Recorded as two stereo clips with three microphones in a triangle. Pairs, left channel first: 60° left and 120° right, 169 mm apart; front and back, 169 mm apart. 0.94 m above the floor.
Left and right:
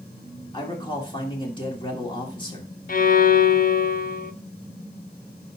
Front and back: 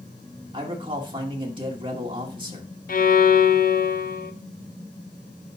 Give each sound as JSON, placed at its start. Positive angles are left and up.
{"t": 0.5, "sound": "a man speaking", "azimuth_deg": 120, "distance_m": 2.0}
{"t": 2.9, "sound": "a violin", "azimuth_deg": 30, "distance_m": 0.5}